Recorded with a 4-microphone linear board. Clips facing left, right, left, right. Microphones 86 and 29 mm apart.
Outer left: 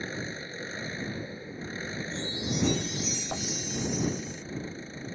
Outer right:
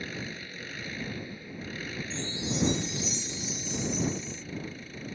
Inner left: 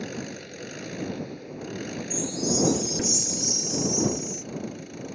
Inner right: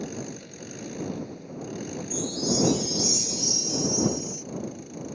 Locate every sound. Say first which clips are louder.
0.0 s an engine running: outer left 2 dB, inner left 1 dB; 30° left (ahead or behind)
2.1 s a chime: even, even; 25° right (ahead or behind)